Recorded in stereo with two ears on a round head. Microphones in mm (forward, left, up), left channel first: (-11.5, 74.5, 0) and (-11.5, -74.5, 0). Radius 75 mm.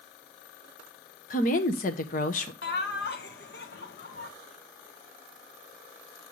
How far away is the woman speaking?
About 1.1 m.